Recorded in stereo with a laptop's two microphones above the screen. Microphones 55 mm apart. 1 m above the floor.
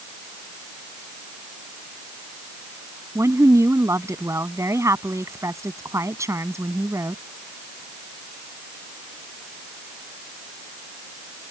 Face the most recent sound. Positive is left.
turn(degrees=-60)  # may be behind; listen again after turning